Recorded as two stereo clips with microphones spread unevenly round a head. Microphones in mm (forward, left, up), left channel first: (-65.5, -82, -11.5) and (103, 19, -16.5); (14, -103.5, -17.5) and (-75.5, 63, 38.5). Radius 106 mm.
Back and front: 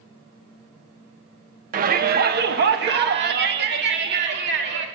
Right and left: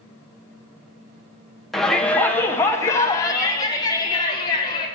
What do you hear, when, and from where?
1.7 s a shout: 10° left, 0.9 m; by 4.8 s 5° left, 2.5 m